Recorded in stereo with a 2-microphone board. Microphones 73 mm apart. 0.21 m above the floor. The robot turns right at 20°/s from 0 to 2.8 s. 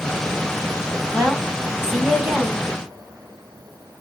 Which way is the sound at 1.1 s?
15° right (ahead or behind).